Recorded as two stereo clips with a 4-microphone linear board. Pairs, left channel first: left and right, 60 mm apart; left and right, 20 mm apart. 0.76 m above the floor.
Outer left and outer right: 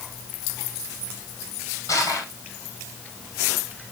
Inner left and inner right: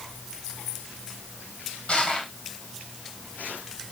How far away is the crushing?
About 4.5 m.